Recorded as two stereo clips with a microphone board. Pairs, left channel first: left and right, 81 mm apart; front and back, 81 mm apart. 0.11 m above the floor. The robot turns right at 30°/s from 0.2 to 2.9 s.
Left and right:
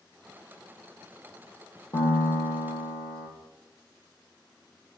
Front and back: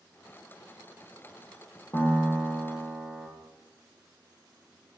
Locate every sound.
1.9 s a piano: 50° left, 0.6 m; by 3.3 s 80° left, 0.6 m